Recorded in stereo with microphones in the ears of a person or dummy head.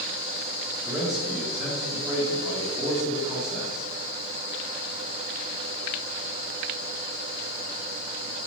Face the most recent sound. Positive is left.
turn(degrees=0)  # may be behind; listen again after turning